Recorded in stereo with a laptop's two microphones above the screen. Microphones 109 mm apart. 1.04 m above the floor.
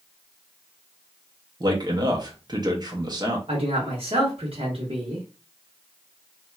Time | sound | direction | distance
1.6 | a man speaking | 40° right (ahead or behind) | 0.6 m
3.5 | a man speaking | 60° right (ahead or behind) | 0.9 m